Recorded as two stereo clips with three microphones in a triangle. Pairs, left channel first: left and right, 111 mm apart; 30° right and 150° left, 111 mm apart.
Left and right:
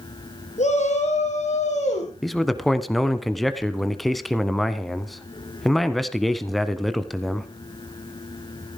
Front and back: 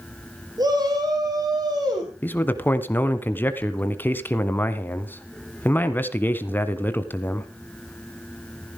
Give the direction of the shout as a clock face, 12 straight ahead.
9 o'clock.